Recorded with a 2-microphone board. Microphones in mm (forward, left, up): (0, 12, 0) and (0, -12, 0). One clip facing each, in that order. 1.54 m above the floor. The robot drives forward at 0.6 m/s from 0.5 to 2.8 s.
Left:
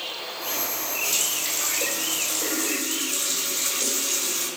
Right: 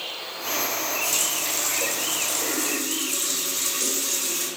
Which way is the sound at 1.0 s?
25° left (ahead or behind).